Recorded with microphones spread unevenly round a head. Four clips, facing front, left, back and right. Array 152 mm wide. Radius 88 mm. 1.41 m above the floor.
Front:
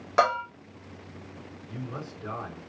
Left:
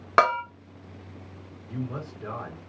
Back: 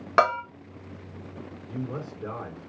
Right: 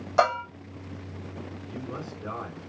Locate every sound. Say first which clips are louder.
0.2 s a bell: left 2 dB, back 2 dB; 110° left, 1.6 m
1.7 s a man speaking: left 4 dB, back 4 dB; 165° left, 1.9 m